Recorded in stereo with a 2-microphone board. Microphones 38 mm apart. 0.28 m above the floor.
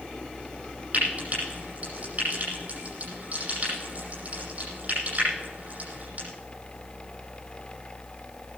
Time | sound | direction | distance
0.9 | frying | 40° right (ahead or behind) | 9.5 m